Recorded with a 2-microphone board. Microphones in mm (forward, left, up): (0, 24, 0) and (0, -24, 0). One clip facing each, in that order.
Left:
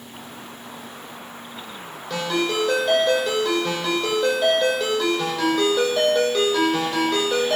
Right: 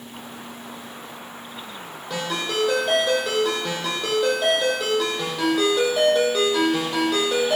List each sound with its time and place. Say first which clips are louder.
2.1 s a ringtone: left 3 dB; 10° right (ahead or behind), 7.5 m